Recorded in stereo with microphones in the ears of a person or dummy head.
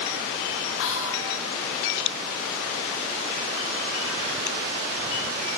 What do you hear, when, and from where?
0.8 s whispering: 75° left (ahead or behind), 1.4 m